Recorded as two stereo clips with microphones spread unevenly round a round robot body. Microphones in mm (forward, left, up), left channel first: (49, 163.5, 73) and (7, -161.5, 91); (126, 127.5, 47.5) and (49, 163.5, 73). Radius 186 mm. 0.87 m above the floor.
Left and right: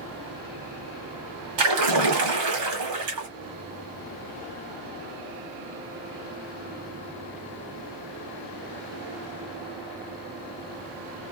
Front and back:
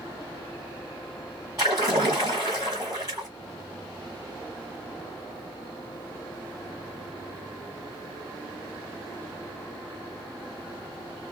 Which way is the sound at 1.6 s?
135° right.